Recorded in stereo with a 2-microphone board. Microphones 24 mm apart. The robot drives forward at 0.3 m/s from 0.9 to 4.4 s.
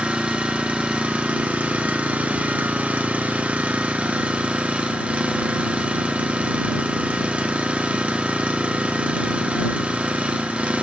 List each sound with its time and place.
0.0 s an engine running: 60° right (ahead or behind), 1.1 m